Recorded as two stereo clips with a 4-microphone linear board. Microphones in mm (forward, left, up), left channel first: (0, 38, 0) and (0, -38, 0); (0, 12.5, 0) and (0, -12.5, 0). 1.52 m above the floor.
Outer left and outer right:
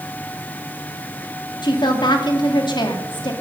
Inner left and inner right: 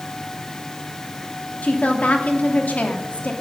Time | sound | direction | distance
1.6 | a woman speaking | 80° left | 2.5 m